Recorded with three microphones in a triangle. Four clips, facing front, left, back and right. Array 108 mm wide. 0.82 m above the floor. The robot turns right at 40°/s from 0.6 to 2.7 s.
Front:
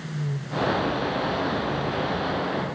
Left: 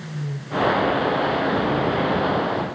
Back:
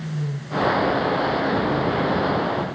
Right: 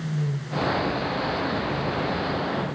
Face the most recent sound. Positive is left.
No sound to turn to.